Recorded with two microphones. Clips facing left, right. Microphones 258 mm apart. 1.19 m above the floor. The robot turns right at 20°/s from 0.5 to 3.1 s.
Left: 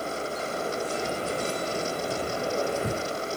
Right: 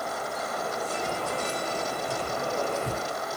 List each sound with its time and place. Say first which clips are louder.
1.0 s keys jangling: left 2 dB; 35° left (ahead or behind), 0.9 m; by 3.4 s 70° left (ahead or behind), 0.9 m